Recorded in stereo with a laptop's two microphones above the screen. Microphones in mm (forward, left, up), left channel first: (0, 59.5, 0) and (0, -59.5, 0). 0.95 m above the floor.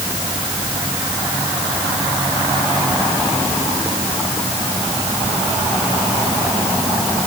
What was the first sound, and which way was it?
Only background noise.